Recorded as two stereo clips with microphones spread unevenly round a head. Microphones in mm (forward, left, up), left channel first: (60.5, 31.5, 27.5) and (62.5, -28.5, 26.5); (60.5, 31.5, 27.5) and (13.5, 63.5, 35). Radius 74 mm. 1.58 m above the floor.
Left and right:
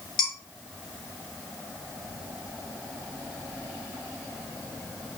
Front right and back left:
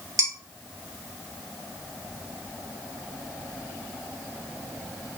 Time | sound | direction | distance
0.2 | dishes clattering | 125° left | 3 m